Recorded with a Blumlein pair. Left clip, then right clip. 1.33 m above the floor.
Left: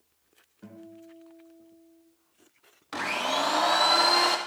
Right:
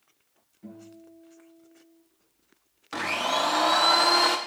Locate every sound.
0.6 s a guitar: 45° left, 4.5 m
2.9 s a blender: 5° right, 0.8 m